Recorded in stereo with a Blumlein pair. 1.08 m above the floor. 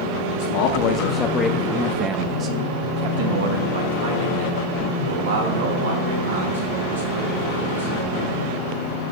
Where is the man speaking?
55° left, 0.9 m; by 7.9 s 75° right, 3.5 m.